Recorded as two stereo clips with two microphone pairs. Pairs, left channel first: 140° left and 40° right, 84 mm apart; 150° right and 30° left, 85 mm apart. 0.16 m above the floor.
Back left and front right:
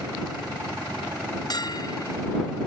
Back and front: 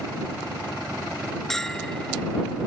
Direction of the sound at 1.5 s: 125° left.